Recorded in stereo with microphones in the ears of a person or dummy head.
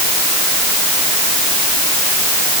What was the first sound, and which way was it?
Only background noise.